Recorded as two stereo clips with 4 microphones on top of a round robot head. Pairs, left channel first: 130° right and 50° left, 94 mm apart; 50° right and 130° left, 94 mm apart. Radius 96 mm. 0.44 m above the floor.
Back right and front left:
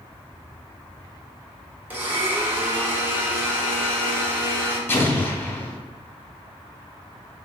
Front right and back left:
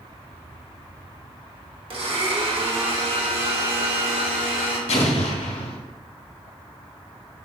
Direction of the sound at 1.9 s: 120° left.